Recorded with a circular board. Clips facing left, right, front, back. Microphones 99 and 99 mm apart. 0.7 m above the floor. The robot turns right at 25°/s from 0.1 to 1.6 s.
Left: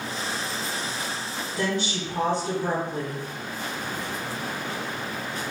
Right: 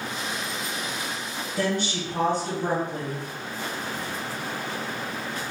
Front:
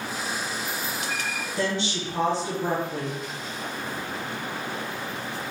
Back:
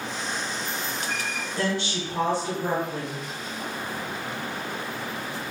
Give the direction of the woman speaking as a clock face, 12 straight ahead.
2 o'clock.